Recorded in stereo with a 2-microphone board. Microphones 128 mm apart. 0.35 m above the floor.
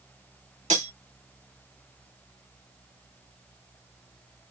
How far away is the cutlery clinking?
About 2 m.